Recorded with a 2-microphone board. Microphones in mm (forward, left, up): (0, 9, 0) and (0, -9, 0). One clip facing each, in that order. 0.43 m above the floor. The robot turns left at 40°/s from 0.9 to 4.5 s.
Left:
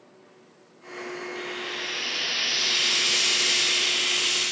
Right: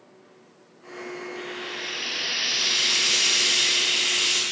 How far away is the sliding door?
No sliding door in this recording.